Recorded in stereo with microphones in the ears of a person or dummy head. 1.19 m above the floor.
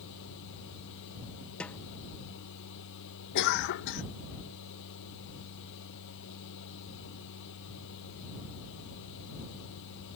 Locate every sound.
0.0 s a machine running: 65° left (ahead or behind)
1.6 s a snare drum: 5° left (ahead or behind)
3.4 s a cough: 60° left (ahead or behind)